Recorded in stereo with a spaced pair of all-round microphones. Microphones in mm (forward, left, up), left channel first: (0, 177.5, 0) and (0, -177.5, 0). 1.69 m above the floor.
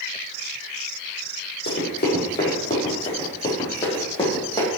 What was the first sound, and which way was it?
Running footsteps, 30° left (ahead or behind).